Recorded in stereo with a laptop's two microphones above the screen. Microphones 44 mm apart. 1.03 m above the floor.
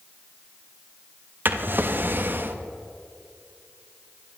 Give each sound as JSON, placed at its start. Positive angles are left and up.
{"t": 1.4, "sound": "a drawer", "side_deg": -45, "distance_m": 0.5}